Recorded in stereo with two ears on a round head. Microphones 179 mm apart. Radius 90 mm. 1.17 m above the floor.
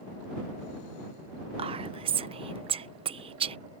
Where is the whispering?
30° right (ahead or behind).